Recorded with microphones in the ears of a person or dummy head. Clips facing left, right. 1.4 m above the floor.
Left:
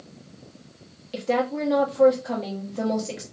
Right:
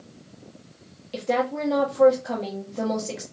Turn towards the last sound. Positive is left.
turn(degrees=-5)  # may be behind; listen again after turning